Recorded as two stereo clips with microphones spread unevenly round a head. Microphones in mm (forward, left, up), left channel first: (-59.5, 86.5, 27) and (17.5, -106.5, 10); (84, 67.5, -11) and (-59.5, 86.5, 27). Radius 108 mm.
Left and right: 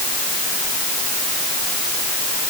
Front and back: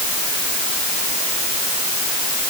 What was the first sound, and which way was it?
Only background noise.